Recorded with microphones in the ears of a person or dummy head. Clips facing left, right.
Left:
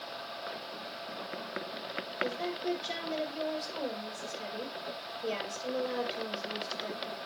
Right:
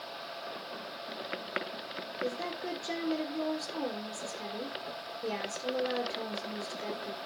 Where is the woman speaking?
55° right (ahead or behind), 4.5 m.